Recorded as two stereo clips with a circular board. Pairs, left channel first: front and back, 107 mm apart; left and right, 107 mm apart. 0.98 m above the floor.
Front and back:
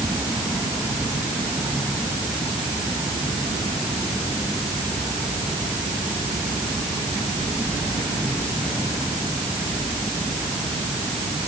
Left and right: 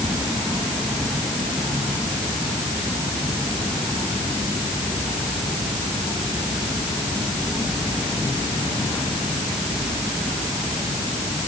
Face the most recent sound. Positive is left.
No sound to turn to.